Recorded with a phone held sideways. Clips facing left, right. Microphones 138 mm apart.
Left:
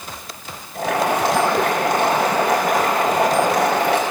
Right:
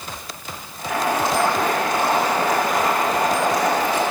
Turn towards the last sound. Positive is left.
turn(degrees=80)